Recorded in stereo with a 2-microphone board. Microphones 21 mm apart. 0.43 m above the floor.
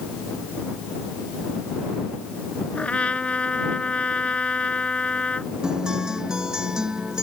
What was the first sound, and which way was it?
A trumpet, 80° left.